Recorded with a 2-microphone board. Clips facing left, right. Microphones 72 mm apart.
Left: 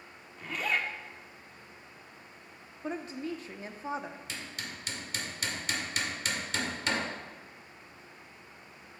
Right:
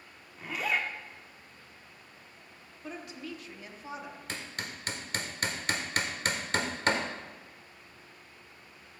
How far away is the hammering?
About 1.2 m.